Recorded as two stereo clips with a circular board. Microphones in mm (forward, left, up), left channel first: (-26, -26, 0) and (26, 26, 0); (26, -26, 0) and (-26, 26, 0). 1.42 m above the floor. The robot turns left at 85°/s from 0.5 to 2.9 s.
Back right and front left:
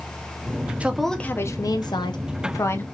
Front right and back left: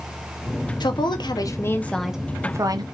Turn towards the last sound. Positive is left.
turn(degrees=155)